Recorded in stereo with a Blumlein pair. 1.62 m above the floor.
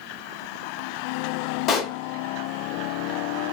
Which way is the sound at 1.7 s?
35° left.